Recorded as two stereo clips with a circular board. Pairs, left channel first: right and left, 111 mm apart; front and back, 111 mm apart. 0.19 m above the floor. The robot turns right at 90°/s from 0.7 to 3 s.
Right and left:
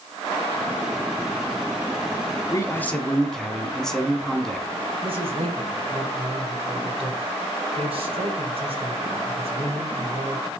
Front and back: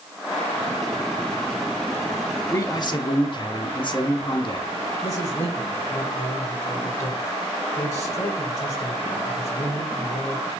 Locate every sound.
2.5 s a man speaking: 50° right, 1.4 m; by 4.8 s 5° right, 1.4 m
5.0 s a man speaking: 60° left, 4 m